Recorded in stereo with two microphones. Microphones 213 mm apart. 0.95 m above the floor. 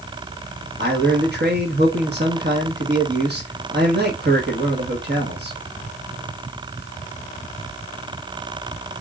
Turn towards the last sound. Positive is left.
turn(degrees=-50)  # may be behind; listen again after turning